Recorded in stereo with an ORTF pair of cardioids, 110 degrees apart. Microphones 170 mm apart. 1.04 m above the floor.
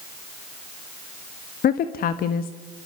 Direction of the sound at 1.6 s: 60° left.